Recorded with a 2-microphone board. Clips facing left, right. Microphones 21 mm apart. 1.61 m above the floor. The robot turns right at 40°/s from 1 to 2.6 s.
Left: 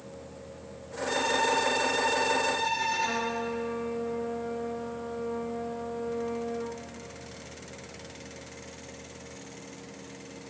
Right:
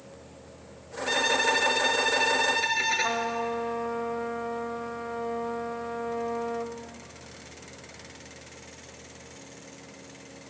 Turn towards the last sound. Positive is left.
turn(degrees=-65)  # may be behind; listen again after turning